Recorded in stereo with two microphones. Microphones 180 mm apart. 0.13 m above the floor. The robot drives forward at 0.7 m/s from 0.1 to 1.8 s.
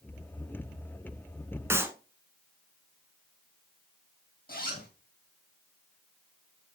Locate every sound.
1.7 s a clap: 15° right (ahead or behind), 0.9 m
4.5 s a zipper: 60° left (ahead or behind), 2.5 m